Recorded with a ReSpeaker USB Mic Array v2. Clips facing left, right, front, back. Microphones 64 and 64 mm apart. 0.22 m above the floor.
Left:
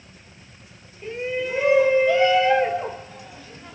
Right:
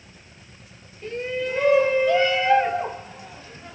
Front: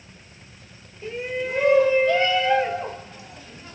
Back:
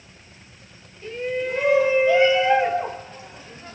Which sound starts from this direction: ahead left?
A shout, at 1.0 s.